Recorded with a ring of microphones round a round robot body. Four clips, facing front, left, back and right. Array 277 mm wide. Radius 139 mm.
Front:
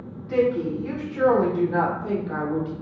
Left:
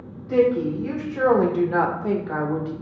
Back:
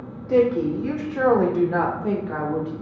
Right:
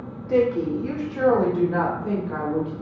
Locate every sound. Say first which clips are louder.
0.3 s a woman speaking: left 1 dB, back 3 dB; 145° right, 1.1 m; by 2.7 s 95° left, 1.4 m